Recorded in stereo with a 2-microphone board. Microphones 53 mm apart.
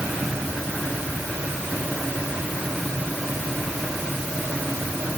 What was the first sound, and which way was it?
Only background noise.